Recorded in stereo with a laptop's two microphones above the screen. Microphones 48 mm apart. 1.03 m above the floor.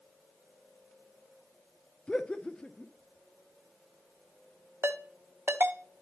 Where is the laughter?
20° left (ahead or behind), 0.6 m.